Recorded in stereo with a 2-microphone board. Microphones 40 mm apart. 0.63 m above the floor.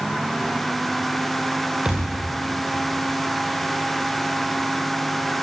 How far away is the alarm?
I don't hear an alarm.